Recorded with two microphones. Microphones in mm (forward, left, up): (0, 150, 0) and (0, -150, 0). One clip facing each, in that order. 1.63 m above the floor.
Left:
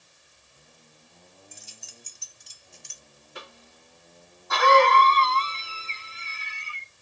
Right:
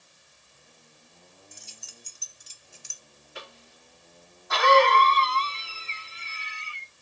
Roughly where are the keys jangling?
Centre.